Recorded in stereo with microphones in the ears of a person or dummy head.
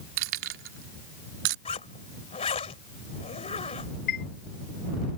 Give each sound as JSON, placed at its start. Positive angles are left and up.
{"t": 0.2, "sound": "keys jangling", "side_deg": -70}
{"t": 1.6, "sound": "a zipper", "side_deg": 30}
{"t": 4.1, "sound": "a chime", "side_deg": 65}